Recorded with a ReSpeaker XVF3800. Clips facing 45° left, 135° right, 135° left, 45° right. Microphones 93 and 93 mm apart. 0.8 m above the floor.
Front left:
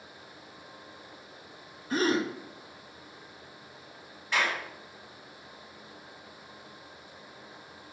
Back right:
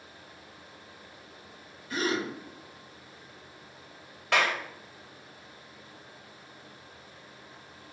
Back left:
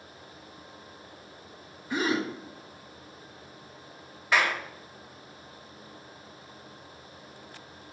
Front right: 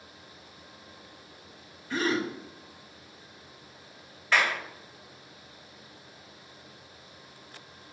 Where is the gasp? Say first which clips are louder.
Front left 3 dB, even; 65° left, 1.1 m.